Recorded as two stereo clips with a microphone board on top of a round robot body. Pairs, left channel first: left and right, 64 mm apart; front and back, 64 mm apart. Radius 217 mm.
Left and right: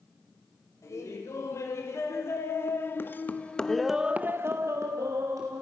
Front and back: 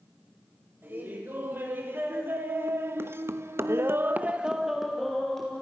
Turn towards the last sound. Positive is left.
turn(degrees=-80)